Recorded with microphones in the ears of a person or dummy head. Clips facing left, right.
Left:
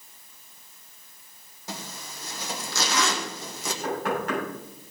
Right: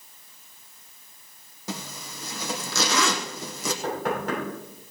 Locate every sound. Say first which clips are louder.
1.7 s a zipper: right 3 dB; 60° right (ahead or behind), 1.2 m
3.8 s knocking: left 1 dB; 80° right, 8 m